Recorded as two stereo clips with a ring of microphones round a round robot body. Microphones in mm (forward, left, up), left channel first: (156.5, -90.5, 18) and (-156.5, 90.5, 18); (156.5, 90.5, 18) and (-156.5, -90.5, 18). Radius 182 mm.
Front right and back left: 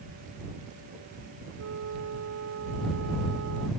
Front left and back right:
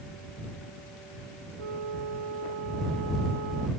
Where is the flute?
160° right.